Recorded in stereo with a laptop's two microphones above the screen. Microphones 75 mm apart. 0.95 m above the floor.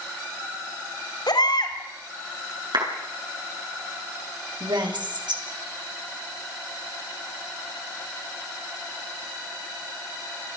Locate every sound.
1.3 s a baby crying: 75° left (ahead or behind), 3.5 m
2.7 s a clap: 80° right, 7.5 m
4.6 s a woman speaking: 85° right, 5 m